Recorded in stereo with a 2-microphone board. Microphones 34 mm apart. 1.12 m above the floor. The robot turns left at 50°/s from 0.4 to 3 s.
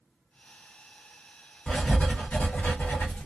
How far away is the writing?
About 1.0 m.